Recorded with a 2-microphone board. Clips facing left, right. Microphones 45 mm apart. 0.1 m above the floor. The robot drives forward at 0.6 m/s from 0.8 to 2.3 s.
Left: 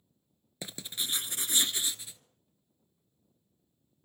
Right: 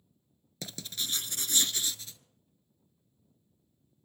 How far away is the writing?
About 0.7 m.